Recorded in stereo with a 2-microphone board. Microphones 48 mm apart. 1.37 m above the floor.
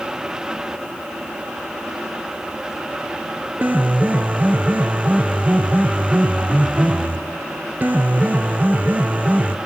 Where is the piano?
35° right (ahead or behind), 1.0 m.